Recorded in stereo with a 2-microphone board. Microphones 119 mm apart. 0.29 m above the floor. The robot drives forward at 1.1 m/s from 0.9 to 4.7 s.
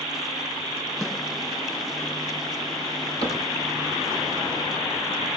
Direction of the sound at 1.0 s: 5° left (ahead or behind).